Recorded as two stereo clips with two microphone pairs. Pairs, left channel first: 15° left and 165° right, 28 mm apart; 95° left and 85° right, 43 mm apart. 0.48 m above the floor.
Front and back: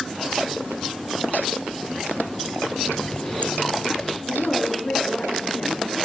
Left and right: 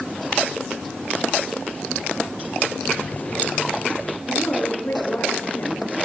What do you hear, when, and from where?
2.9 s a running tap: 50° left, 1.1 m
4.3 s a woman speaking: 65° left, 6.5 m